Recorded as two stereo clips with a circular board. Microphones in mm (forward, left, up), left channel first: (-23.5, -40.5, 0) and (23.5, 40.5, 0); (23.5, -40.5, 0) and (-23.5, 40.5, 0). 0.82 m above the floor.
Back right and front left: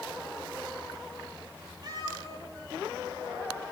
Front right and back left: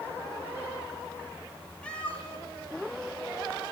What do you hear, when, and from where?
1.8 s a cat meowing: 15° left, 5 m